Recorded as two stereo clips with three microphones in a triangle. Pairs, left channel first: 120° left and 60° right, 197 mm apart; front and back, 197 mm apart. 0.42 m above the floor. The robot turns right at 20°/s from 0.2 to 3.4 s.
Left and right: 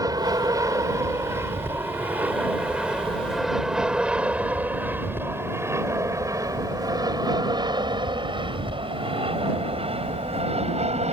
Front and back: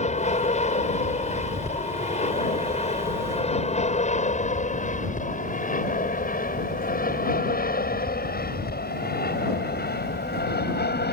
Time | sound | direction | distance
0.0 | an aircraft | straight ahead | ?